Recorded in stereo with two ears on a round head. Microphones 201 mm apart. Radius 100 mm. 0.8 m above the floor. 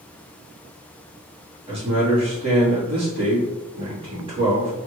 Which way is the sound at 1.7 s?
25° right (ahead or behind).